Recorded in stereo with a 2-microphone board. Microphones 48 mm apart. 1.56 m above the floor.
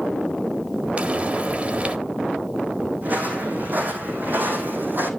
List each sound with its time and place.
1.0 s frying: 30° right (ahead or behind), 1.5 m
3.0 s footsteps: 40° right (ahead or behind), 4.5 m; by 5.1 s 50° right (ahead or behind), 3.5 m